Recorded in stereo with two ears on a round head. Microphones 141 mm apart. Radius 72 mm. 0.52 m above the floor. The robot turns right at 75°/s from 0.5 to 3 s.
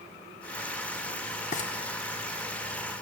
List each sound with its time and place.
1.5 s frying: 50° left (ahead or behind), 0.8 m